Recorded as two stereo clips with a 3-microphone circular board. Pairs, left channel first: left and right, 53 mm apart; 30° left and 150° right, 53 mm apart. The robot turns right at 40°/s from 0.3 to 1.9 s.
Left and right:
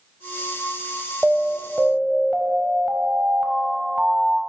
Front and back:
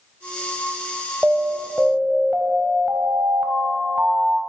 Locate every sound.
1.2 s an alarm: straight behind, 0.7 m; by 4.4 s 150° right, 0.7 m